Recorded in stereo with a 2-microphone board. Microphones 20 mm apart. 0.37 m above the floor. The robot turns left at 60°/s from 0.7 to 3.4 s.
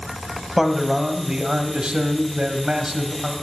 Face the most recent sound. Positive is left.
turn(degrees=-175)